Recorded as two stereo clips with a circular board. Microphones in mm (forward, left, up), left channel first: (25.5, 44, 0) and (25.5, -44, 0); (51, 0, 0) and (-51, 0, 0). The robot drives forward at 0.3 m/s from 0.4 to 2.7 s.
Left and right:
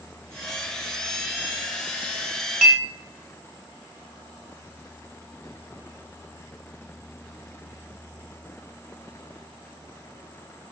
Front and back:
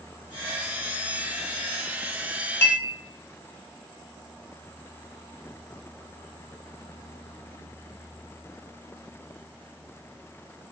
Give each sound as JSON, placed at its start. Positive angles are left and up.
{"t": 2.6, "sound": "a clink", "azimuth_deg": -10, "distance_m": 0.7}